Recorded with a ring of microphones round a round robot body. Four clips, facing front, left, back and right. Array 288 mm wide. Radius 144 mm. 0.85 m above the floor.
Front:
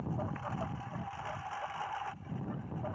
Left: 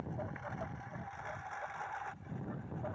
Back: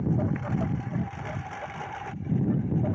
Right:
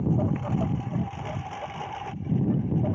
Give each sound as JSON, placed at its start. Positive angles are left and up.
{"t": 0.0, "sound": "a lawn mower", "azimuth_deg": -120}